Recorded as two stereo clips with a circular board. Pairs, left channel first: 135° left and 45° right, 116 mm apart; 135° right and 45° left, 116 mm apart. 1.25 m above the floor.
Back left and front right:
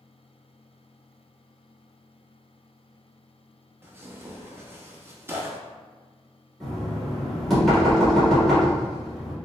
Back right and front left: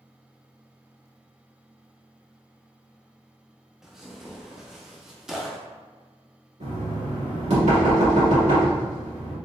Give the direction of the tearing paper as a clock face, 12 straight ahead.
1 o'clock.